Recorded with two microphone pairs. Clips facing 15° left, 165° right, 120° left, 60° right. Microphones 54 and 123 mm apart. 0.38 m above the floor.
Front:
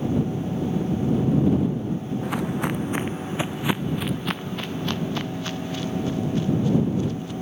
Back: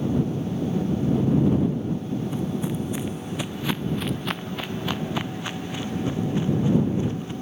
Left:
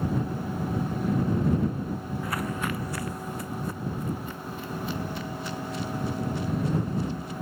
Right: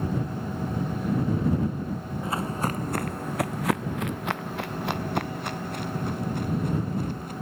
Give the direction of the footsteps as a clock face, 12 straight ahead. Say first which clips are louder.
Front 2 dB, right 3 dB; 12 o'clock.